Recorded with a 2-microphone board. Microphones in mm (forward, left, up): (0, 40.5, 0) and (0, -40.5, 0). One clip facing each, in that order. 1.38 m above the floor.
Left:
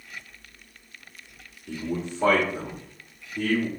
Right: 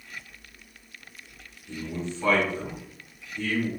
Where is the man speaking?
60° left (ahead or behind), 0.7 m.